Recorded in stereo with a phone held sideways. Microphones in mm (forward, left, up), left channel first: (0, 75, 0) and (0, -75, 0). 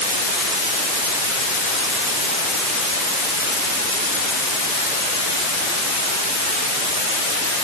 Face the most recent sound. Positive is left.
No sound to turn to.